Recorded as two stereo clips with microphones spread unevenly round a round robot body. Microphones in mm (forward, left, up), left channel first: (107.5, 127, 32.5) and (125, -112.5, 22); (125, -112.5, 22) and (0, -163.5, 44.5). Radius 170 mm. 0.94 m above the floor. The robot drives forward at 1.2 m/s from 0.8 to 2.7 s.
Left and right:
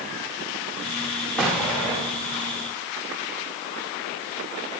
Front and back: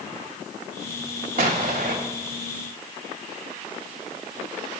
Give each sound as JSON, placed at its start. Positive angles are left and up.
{"t": 1.4, "sound": "an explosion", "azimuth_deg": -175, "distance_m": 1.0}